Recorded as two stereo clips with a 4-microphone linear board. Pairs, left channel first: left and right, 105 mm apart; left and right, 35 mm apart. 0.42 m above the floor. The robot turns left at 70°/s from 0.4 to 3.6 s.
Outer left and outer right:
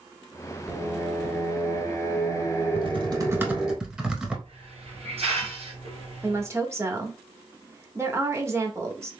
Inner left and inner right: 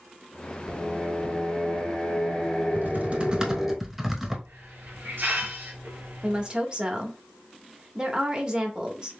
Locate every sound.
0.7 s singing: 5° right (ahead or behind), 1.5 m
2.8 s typing on a keyboard: 115° right, 1.1 m; by 4.3 s 170° right, 1.1 m
4.5 s a hiss: 75° right (ahead or behind), 2 m
6.2 s a woman speaking: 25° right (ahead or behind), 1.1 m